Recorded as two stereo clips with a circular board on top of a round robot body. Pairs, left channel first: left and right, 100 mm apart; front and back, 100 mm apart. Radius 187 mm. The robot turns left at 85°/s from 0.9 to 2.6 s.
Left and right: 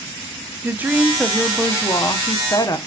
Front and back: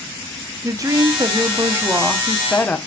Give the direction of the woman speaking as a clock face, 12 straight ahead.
5 o'clock.